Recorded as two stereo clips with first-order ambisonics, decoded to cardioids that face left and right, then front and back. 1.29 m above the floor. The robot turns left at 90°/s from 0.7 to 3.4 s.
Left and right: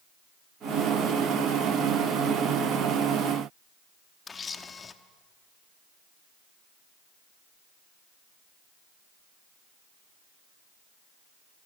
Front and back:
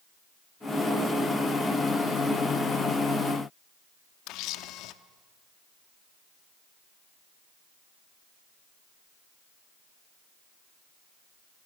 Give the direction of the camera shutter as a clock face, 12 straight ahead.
11 o'clock.